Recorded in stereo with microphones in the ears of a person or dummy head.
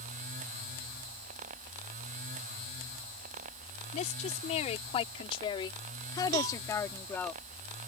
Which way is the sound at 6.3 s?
80° right.